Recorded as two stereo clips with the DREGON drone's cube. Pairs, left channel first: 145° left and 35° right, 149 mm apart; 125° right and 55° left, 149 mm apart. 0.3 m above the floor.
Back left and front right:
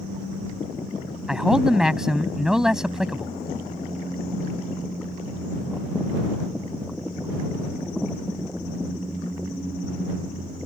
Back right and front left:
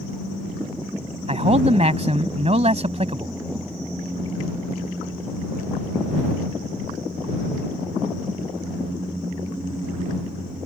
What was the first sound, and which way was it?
A man speaking, 50° left.